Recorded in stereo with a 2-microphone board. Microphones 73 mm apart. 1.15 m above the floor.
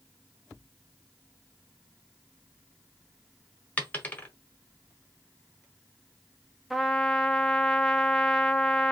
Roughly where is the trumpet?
Centre.